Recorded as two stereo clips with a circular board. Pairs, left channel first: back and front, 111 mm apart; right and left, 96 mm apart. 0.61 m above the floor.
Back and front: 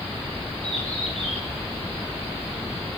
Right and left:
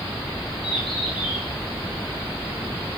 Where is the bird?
Straight behind, 8.5 m.